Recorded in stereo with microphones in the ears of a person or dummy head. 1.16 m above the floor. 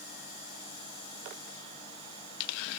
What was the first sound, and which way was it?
Only background noise.